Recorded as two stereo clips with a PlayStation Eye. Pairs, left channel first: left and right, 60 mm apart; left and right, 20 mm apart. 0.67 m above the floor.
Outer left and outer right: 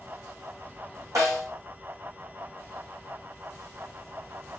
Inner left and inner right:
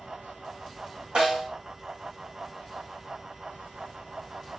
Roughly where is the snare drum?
Right.